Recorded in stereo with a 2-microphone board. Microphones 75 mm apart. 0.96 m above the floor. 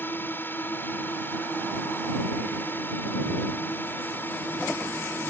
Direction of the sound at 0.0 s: 30° left (ahead or behind).